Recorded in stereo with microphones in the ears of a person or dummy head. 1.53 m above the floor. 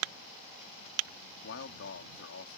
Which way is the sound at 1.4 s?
80° left.